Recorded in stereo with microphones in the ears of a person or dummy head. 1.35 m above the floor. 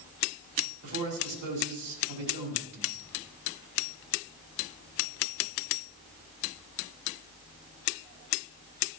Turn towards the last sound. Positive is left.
turn(degrees=-75)  # may be behind; listen again after turning